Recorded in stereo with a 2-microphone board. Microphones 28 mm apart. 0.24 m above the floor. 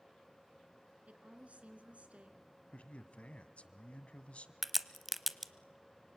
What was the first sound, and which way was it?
A woman speaking, 55° right (ahead or behind).